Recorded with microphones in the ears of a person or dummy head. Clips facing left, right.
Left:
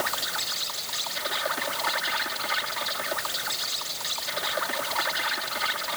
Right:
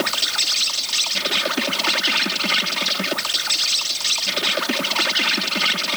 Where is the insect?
35° right (ahead or behind).